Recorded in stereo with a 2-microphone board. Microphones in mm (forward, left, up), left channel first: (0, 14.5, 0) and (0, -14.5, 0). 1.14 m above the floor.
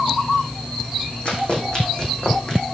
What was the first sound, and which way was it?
Running footsteps, 45° left (ahead or behind).